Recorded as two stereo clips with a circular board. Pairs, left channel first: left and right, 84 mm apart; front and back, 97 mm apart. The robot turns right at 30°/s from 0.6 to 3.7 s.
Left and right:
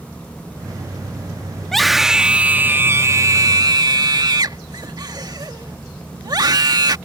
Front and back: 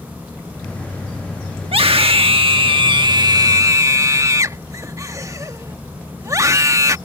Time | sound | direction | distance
1.6 | a scream | 175° left | ?